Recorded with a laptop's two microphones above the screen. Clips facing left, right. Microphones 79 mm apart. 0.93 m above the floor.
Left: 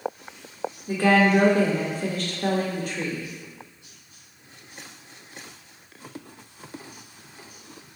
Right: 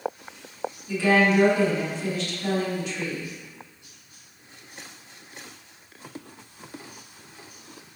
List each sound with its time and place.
0.9 s a woman speaking: 45° left (ahead or behind), 1.0 m